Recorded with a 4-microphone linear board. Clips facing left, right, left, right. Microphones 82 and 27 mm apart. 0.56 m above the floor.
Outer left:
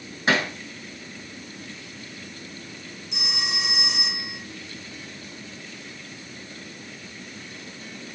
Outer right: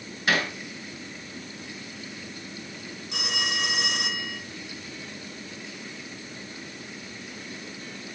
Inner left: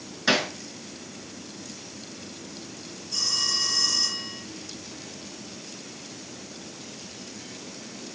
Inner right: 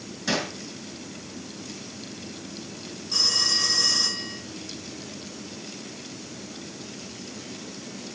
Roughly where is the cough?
No cough in this recording.